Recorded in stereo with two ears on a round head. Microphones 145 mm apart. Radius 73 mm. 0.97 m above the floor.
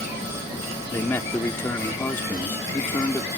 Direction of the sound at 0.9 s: 15° left (ahead or behind).